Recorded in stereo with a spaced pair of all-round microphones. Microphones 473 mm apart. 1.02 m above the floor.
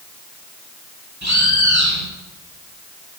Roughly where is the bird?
Right.